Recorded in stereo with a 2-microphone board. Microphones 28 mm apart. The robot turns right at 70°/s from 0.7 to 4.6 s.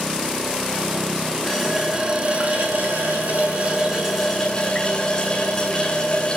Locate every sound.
1.5 s a running tap: 165° left, 8 m; by 6.4 s 25° left, 8 m